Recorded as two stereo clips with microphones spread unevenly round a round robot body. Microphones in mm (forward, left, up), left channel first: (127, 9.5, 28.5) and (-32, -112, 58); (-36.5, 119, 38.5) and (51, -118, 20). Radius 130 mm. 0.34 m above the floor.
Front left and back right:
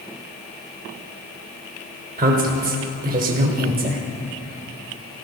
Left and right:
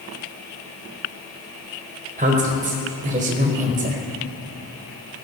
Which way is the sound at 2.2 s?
110° right.